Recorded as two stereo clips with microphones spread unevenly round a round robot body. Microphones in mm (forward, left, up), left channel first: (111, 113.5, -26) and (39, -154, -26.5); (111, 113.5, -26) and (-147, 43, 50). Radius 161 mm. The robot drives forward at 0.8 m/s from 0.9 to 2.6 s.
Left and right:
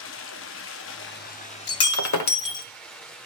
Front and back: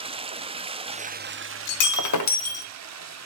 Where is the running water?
115° left, 0.8 m; by 3.3 s 160° left, 1.8 m.